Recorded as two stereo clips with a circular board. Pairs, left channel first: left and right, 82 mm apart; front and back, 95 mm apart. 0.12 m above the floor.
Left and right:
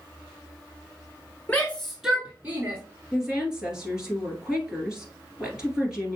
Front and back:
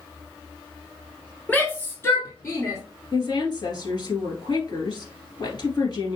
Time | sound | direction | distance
1.5 | a shout | 50° left | 1.3 m
3.1 | a woman speaking | 10° right | 2.5 m